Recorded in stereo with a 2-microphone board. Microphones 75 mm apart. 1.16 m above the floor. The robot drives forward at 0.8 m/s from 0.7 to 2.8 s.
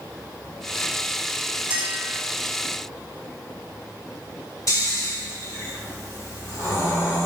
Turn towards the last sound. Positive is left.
turn(degrees=45)  # may be behind; listen again after turning